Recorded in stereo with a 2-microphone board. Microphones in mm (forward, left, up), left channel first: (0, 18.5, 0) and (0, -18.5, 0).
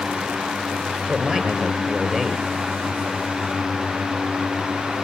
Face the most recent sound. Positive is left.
turn(degrees=-20)  # may be behind; listen again after turning